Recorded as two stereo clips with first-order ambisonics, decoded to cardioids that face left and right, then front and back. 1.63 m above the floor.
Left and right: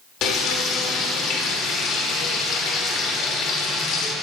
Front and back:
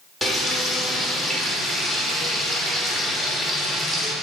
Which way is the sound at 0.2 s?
100° left.